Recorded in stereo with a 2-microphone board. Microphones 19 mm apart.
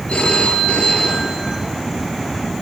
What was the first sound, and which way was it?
A phone ringing, 75° left (ahead or behind).